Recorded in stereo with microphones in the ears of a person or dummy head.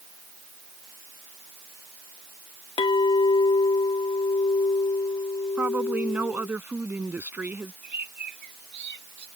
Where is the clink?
25° left (ahead or behind).